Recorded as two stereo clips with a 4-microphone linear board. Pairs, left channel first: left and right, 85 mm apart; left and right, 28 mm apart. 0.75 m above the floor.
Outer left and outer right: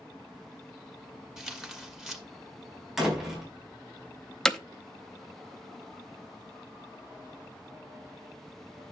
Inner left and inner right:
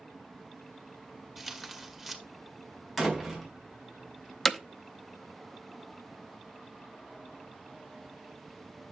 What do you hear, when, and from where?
1.4 s tearing paper: 5° right (ahead or behind), 1.4 m
3.0 s a door slam: 5° right (ahead or behind), 4 m
4.5 s hammering: 5° left (ahead or behind), 0.7 m